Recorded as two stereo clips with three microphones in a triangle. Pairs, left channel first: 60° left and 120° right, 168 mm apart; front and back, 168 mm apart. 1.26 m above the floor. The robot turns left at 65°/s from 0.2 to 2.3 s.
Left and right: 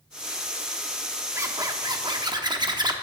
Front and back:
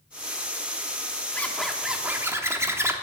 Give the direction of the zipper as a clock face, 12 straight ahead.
2 o'clock.